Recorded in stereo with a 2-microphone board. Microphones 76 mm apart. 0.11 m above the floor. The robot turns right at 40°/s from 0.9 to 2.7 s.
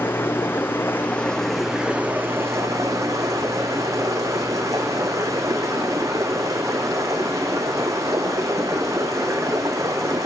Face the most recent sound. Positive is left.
turn(degrees=-135)